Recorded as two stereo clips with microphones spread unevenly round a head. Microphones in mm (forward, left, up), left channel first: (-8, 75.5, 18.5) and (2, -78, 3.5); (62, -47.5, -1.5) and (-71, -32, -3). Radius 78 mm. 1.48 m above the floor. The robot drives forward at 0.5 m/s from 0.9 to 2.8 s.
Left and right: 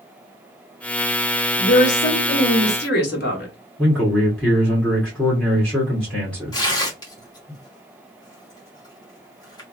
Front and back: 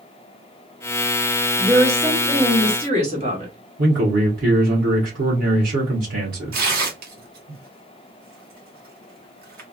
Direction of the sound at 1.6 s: 95° left.